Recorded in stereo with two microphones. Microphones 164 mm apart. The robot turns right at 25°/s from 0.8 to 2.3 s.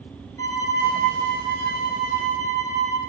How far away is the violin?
About 3 m.